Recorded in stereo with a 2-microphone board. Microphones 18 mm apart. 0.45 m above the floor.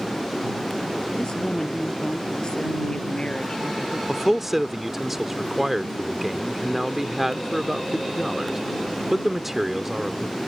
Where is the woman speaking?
45° left (ahead or behind).